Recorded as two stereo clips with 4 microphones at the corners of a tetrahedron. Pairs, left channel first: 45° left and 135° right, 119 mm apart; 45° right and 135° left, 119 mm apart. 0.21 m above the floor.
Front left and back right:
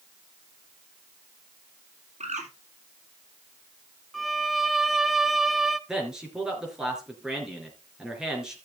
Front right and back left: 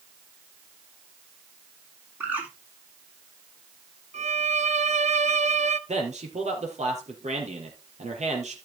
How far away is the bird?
About 2.5 m.